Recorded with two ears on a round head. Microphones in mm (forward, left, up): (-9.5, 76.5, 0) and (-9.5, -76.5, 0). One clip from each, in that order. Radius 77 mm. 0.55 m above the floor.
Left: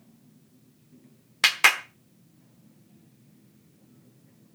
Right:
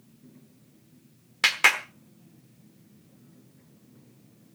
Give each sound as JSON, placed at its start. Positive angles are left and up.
{"t": 1.4, "sound": "a clap", "side_deg": 15, "distance_m": 1.0}